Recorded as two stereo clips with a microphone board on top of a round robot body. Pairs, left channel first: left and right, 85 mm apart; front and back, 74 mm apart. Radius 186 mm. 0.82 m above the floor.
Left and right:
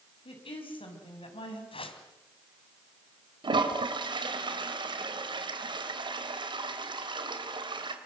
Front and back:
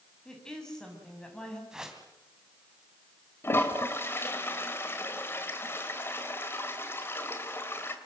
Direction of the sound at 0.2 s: 80° left.